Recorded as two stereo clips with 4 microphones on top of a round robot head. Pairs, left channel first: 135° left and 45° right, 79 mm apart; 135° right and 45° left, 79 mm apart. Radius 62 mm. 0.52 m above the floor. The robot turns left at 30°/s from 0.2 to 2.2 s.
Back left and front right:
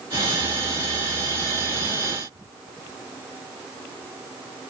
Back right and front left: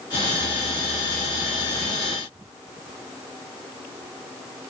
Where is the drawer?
I don't hear a drawer.